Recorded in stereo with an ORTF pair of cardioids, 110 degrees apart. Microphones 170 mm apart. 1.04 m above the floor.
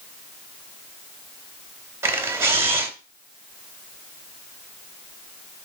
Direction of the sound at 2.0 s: 15° right.